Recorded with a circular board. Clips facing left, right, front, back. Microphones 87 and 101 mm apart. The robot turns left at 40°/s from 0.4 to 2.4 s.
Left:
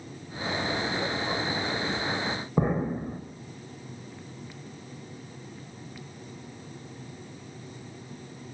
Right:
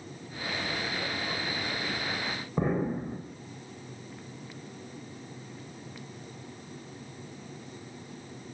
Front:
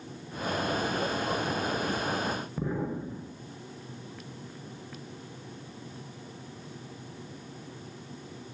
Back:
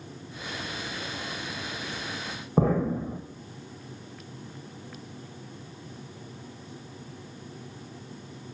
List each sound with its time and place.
2.6 s an explosion: 160° left, 6.5 m